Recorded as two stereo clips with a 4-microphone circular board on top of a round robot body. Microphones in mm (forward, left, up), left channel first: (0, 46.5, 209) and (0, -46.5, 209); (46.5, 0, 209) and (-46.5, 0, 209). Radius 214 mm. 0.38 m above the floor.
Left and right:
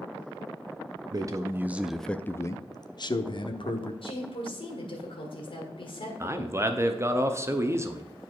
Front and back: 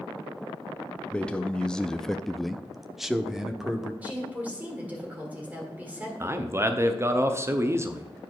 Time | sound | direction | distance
1.1 | a man speaking | 75° right | 0.9 m
4.0 | a woman speaking | 105° left | 2.5 m
6.2 | a man speaking | 135° right | 1.1 m